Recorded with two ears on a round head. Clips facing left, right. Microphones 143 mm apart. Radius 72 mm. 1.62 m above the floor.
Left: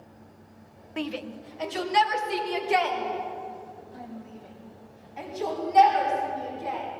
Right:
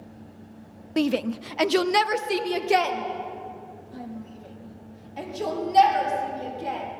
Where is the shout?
45° right (ahead or behind), 0.6 m; by 6.8 s 35° right (ahead or behind), 6 m.